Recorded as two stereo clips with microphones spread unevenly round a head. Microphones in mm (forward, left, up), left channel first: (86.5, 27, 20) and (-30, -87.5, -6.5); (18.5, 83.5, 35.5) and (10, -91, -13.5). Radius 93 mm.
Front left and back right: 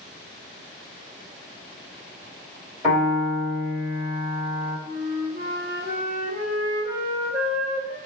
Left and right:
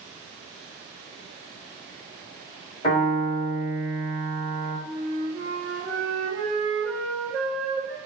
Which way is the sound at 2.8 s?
150° left.